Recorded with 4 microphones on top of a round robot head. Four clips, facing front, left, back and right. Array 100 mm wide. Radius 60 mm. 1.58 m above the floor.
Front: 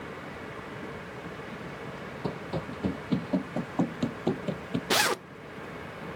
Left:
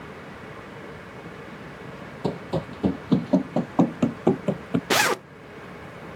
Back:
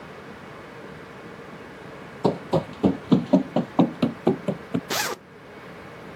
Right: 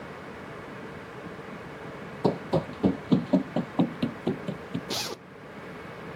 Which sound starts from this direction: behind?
Running footsteps, at 2.2 s.